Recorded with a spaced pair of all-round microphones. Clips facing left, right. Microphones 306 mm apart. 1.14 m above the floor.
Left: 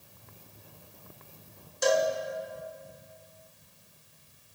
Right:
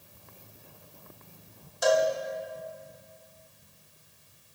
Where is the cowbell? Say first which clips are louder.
Right 1 dB; 30° left (ahead or behind), 0.9 m.